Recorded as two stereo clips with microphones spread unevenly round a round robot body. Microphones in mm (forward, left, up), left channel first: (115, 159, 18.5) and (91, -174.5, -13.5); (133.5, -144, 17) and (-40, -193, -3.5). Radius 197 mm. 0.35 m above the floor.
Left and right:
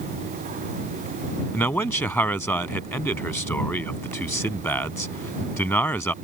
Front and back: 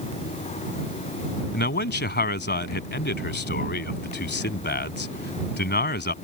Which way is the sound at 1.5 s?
Straight ahead.